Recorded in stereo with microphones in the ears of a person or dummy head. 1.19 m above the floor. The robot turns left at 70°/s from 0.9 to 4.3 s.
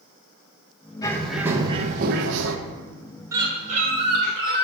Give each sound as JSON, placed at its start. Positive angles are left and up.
{"t": 1.0, "sound": "a bird", "azimuth_deg": 25, "distance_m": 0.7}
{"t": 3.3, "sound": "a bird", "azimuth_deg": -10, "distance_m": 1.7}